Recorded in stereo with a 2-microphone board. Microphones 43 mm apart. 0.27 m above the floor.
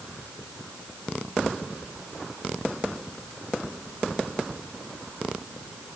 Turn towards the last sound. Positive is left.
No sound to turn to.